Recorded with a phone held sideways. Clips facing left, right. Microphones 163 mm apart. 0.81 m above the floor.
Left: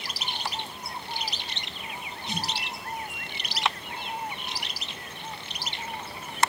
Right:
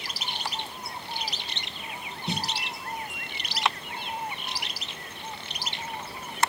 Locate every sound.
2.3 s a snare drum: 60° right (ahead or behind), 1.9 m